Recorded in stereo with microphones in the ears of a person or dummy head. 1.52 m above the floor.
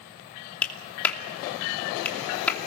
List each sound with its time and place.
0.6 s a clap: 10° left (ahead or behind), 2.5 m